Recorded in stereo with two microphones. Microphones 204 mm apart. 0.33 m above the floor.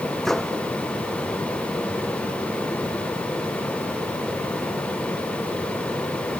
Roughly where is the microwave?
Centre.